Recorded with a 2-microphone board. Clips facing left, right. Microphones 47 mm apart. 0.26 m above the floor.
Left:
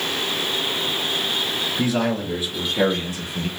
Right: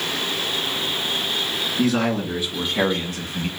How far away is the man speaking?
About 3.5 m.